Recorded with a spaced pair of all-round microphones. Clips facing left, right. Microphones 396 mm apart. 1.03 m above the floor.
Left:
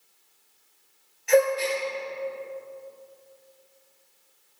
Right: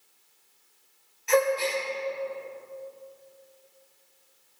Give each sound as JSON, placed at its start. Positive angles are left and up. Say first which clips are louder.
{"t": 1.3, "sound": "a gasp", "louder": "left 3 dB", "side_deg": -15, "distance_m": 1.7}